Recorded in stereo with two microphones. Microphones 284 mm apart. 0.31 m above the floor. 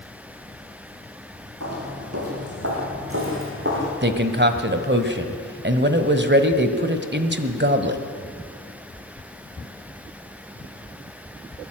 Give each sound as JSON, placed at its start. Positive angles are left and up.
{"t": 1.6, "sound": "footsteps", "side_deg": -60, "distance_m": 7.0}
{"t": 4.0, "sound": "a man speaking", "side_deg": -40, "distance_m": 1.5}